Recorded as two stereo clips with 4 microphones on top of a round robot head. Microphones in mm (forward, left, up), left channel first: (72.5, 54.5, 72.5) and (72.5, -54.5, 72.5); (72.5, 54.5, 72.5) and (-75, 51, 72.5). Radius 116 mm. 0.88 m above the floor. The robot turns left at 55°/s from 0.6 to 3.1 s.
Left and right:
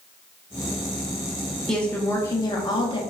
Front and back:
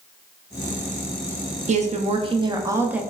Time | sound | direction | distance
1.7 | a woman speaking | 175° left | 0.6 m